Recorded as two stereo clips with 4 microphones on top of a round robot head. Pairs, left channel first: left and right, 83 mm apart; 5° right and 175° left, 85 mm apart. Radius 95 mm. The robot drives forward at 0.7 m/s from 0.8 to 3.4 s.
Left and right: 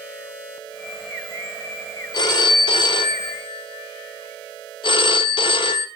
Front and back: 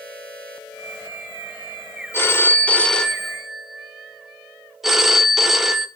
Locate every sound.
2.1 s a phone ringing: 55° left, 1.7 m; by 5.9 s 90° left, 1.4 m